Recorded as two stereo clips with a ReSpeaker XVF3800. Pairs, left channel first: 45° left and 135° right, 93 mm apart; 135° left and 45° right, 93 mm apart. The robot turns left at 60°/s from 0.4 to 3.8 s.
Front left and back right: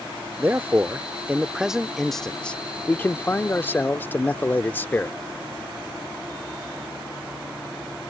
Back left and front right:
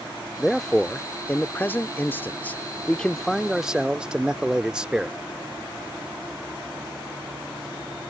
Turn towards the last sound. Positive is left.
turn(degrees=25)